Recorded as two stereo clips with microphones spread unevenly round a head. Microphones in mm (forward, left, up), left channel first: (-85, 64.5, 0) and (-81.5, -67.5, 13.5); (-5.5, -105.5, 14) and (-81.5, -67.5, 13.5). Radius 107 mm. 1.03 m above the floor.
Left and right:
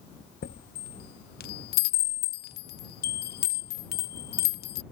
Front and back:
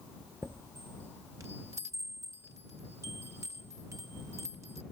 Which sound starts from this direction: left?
A chime, at 0.4 s.